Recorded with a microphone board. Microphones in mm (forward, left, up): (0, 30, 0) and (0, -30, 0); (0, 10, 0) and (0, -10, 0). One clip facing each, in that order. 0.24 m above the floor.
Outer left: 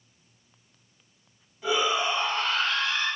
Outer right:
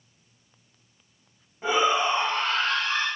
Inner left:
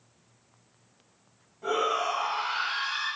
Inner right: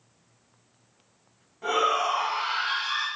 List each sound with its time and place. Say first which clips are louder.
1.6 s a shout: outer right 3 dB, inner right 3 dB; 40° right (ahead or behind), 1.6 m; by 3.1 s 55° right (ahead or behind), 1.9 m